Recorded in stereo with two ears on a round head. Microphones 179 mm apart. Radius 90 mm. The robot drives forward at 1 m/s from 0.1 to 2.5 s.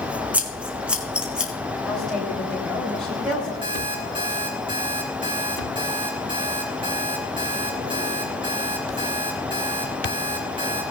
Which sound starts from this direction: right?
An alarm clock, at 3.6 s.